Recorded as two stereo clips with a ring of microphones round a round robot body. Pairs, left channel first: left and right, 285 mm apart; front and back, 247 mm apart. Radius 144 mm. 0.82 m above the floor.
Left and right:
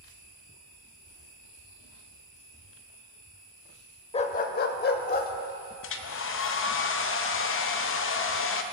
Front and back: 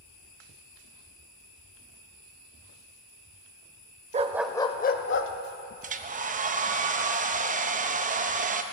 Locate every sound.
4.1 s a dog barking: 145° left, 0.6 m; by 5.3 s 30° left, 1.0 m
5.8 s a hair dryer: 125° left, 0.7 m